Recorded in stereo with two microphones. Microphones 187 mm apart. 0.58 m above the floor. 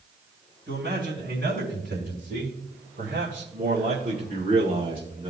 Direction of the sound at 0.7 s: 75° right (ahead or behind).